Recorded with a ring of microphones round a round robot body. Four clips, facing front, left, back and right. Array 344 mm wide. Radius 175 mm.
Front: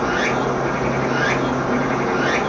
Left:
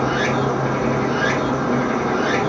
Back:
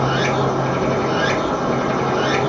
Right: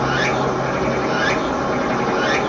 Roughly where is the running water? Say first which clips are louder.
Right 1 dB, back 1 dB; behind right.